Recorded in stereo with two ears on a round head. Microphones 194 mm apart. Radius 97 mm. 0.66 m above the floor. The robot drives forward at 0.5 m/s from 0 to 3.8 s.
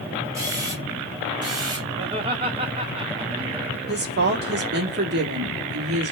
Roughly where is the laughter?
Right.